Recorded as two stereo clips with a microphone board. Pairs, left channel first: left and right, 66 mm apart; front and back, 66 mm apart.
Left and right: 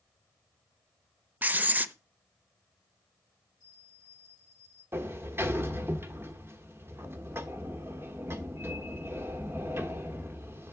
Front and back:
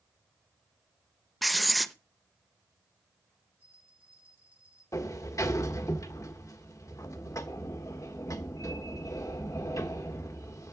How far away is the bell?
About 7 m.